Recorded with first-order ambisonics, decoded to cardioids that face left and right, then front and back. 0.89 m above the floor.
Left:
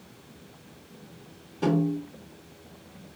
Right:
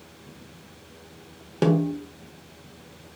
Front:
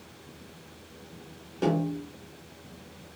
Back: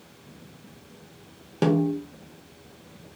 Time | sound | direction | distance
1.6 | a snare drum | 125° right | 1.1 m